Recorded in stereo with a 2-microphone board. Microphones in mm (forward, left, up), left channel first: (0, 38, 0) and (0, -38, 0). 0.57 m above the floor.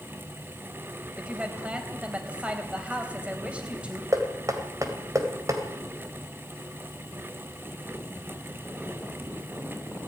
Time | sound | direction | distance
1.2 | a woman speaking | 15° right (ahead or behind) | 3.5 m
4.1 | knocking | 45° right (ahead or behind) | 2.5 m